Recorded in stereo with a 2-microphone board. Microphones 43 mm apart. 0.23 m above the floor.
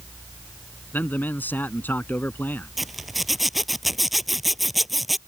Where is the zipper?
5° right (ahead or behind).